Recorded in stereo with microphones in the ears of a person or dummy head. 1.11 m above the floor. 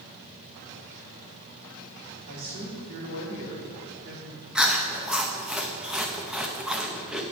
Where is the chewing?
5° right (ahead or behind), 0.8 m.